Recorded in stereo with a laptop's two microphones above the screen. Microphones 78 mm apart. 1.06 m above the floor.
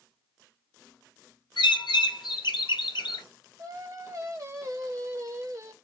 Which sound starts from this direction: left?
A bird, at 1.6 s.